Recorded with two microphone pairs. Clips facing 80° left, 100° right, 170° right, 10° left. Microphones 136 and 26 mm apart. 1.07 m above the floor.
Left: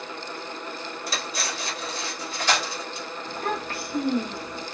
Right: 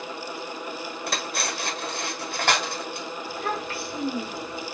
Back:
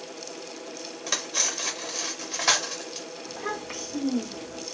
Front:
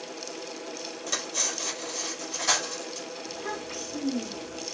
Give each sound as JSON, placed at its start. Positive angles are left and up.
{"t": 1.1, "sound": "cutlery clinking", "azimuth_deg": -120, "distance_m": 0.8}
{"t": 3.3, "sound": "a child speaking", "azimuth_deg": 130, "distance_m": 1.0}